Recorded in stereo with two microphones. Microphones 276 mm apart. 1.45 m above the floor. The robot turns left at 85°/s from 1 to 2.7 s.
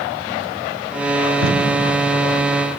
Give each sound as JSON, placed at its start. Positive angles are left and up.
{"t": 1.4, "sound": "tape being pulled", "side_deg": -65, "distance_m": 3.5}